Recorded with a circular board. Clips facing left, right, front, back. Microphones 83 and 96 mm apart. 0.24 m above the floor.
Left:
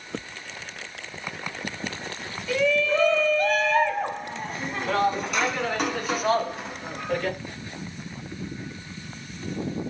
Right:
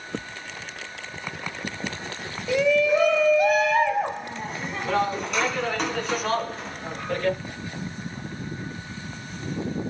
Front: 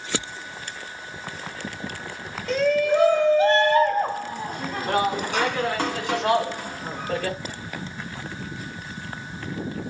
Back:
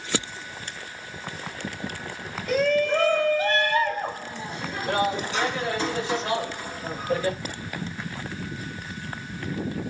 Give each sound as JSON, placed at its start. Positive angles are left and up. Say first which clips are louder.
{"t": 2.5, "sound": "a shout", "louder": "right 3 dB, front 2 dB", "azimuth_deg": -105, "distance_m": 1.0}